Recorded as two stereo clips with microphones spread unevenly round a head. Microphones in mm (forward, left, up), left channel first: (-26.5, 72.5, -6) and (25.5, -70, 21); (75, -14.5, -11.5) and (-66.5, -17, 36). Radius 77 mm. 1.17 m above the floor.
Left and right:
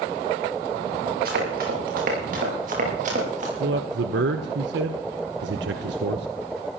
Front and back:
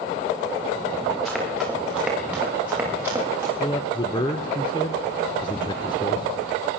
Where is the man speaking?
50° right, 0.9 m.